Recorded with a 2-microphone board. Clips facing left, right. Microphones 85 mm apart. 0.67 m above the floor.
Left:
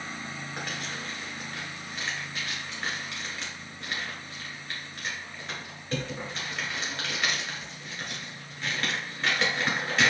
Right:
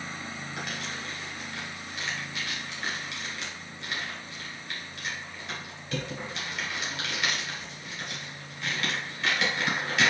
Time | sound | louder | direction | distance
0.6 | crumpling | even | 40° left (ahead or behind) | 1.7 m